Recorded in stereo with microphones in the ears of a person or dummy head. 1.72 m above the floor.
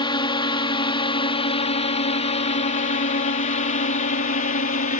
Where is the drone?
25° left (ahead or behind); by 5.0 s 45° left (ahead or behind).